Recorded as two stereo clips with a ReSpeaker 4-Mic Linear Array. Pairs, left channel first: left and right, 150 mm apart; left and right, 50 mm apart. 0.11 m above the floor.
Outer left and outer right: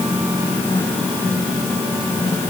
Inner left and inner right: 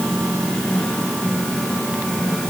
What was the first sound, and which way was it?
Only background noise.